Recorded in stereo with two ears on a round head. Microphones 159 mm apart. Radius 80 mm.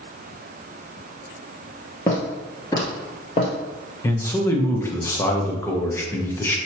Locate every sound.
2.1 s footsteps: 15° left (ahead or behind), 1.7 m; by 3.5 s 25° left (ahead or behind), 1.8 m
4.0 s a man speaking: 15° left (ahead or behind), 0.9 m